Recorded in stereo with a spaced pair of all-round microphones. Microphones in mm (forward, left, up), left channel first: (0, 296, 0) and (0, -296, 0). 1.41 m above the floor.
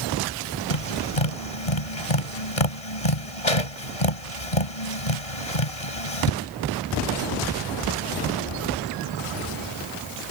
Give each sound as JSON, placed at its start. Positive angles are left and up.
{"t": 0.7, "sound": "tapping", "side_deg": 70}